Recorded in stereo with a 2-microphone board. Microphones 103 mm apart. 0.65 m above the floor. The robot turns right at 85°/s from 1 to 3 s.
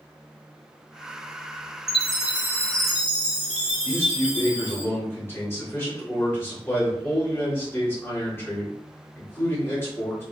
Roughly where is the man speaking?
Left.